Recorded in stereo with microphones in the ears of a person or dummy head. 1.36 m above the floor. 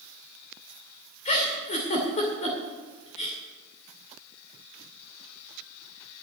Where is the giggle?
35° left (ahead or behind), 2.5 m.